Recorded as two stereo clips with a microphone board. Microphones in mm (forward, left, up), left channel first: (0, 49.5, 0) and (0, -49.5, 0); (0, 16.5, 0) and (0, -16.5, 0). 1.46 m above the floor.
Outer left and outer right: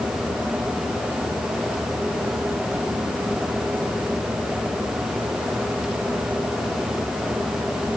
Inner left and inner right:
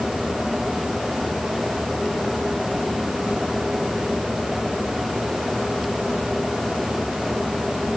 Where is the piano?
No piano in this recording.